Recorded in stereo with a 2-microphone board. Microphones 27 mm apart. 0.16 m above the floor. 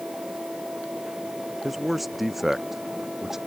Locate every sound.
1.6 s a man speaking: centre (ahead or behind); by 3.4 s 15° right (ahead or behind)